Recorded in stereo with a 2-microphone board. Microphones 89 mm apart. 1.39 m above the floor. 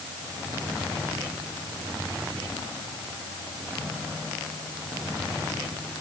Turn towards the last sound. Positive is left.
No sound to turn to.